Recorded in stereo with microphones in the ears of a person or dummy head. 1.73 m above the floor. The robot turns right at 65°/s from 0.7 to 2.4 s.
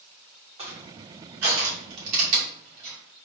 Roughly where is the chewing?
No chewing in this recording.